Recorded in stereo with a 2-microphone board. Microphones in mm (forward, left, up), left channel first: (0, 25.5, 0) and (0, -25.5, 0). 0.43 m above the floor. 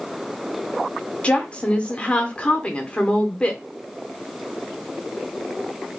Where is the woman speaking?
20° left (ahead or behind), 0.7 m.